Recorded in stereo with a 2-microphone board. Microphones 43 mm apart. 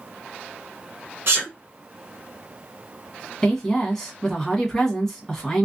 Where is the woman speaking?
10° left (ahead or behind), 1.2 m.